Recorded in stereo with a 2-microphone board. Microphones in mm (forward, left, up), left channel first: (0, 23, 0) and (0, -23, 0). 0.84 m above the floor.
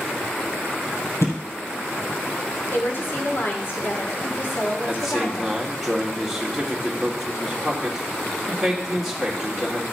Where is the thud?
70° left (ahead or behind), 3 m.